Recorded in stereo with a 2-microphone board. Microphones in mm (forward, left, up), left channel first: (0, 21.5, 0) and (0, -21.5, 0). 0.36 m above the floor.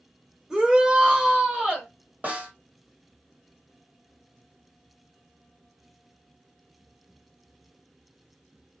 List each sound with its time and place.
0.5 s a shout: 15° right (ahead or behind), 1.4 m; by 1.9 s 25° right (ahead or behind), 1.7 m
2.2 s a snare drum: 40° right (ahead or behind), 2 m